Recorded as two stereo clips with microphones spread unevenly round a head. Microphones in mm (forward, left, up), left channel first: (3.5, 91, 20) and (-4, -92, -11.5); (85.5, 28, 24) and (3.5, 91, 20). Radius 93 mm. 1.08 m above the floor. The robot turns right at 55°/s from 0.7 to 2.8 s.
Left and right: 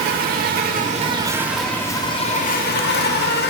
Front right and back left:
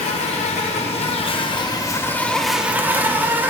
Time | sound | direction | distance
0.0 | an insect | 45° right | 0.9 m